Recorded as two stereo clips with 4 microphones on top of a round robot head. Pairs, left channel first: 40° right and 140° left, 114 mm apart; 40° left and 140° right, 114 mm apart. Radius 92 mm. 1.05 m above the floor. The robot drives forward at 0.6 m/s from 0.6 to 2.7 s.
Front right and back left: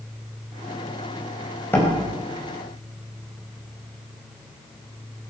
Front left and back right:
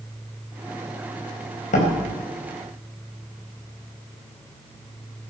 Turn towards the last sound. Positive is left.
turn(degrees=40)